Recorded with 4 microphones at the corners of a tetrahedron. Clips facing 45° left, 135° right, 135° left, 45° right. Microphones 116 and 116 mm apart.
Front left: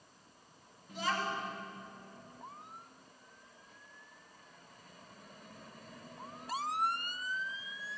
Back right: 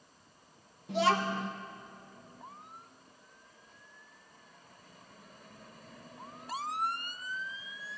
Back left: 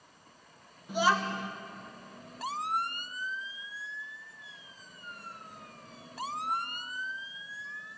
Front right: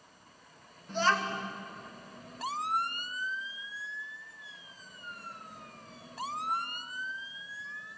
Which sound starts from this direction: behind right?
A child speaking, at 0.9 s.